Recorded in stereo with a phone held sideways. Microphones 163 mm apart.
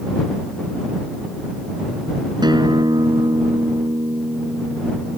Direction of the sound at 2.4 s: 25° right (ahead or behind).